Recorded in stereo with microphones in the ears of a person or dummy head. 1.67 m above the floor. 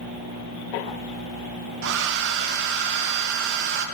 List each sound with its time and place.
1.8 s a hair dryer: 65° right (ahead or behind), 1.3 m